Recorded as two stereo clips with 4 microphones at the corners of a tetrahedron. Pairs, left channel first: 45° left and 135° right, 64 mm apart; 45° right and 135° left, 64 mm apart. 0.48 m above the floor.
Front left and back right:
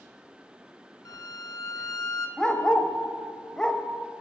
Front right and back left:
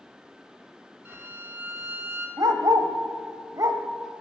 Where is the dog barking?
125° left, 0.7 m.